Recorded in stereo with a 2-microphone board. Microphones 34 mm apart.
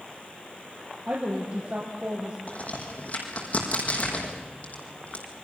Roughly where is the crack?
Left.